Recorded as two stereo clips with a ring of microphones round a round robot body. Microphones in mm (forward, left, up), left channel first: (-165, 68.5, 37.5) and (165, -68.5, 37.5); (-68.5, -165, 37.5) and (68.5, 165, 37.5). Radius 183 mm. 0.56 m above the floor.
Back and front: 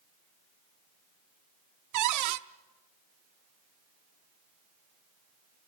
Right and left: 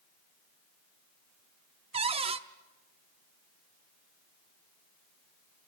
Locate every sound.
1.9 s a cupboard door: 5° right, 0.7 m